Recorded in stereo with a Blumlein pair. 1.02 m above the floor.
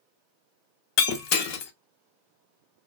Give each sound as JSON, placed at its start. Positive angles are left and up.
{"t": 1.0, "sound": "breaking glass", "azimuth_deg": 40, "distance_m": 0.6}